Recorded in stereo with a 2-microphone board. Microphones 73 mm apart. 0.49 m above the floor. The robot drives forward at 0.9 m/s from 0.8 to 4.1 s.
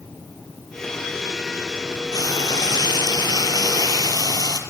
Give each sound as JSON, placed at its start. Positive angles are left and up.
{"t": 2.1, "sound": "frying", "side_deg": 65, "distance_m": 2.0}